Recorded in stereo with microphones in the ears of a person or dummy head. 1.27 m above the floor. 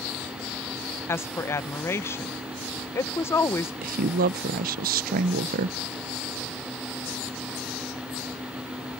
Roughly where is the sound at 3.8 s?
Right.